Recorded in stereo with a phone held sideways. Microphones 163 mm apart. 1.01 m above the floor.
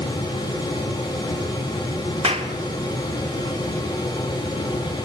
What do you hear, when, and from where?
0.0 s a fan: 30° left (ahead or behind), 5.5 m
2.2 s a clap: 40° right (ahead or behind), 1.6 m